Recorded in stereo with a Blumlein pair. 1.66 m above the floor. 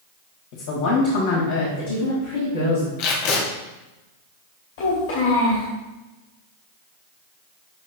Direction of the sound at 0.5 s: 45° left.